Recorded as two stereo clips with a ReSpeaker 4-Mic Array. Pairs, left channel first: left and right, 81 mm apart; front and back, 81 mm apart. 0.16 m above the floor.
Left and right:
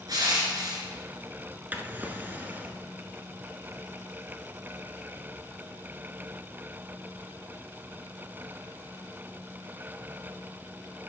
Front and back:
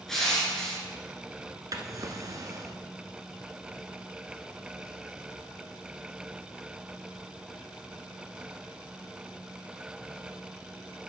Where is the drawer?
155° right, 0.8 m.